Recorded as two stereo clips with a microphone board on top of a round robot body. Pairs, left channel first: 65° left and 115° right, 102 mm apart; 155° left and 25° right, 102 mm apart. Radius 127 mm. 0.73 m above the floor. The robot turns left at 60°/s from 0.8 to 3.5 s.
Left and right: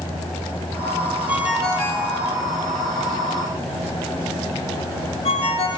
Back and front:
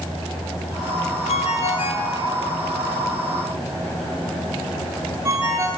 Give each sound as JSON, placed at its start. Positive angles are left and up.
{"t": 1.3, "sound": "a ringtone", "azimuth_deg": 175, "distance_m": 2.5}